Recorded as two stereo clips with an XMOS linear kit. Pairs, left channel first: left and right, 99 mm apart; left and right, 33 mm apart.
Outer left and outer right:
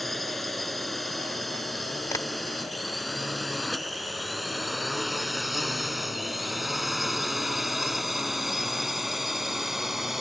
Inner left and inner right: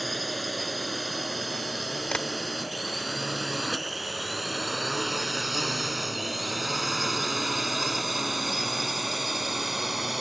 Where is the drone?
Centre (ahead or behind); by 10.2 s 5° right (ahead or behind).